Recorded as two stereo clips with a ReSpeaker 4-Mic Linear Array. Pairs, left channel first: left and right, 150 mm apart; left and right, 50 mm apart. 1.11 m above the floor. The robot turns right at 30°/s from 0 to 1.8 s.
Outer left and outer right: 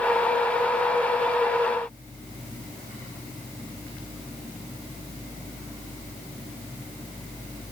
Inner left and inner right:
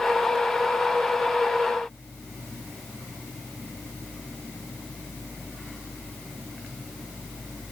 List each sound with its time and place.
Only background noise.